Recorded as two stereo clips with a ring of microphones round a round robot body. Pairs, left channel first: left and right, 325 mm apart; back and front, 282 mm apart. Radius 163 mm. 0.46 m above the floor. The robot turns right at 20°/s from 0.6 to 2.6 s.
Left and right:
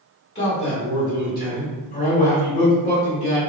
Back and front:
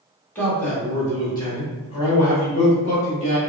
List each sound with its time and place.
0.3 s a man speaking: 100° left, 1.4 m; by 3.4 s 140° left, 1.4 m